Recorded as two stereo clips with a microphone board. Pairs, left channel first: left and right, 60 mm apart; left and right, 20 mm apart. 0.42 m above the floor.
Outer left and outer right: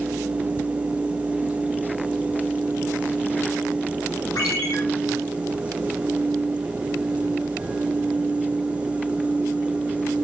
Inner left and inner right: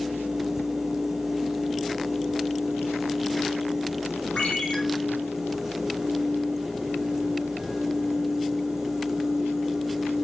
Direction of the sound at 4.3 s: 80° left.